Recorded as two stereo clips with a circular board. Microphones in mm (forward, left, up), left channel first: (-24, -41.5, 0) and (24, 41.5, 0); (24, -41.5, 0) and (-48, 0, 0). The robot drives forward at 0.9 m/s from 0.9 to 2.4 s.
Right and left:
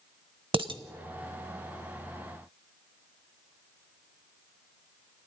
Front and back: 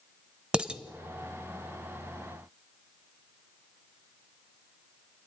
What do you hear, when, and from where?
0.5 s dishes clattering: 75° left, 1.0 m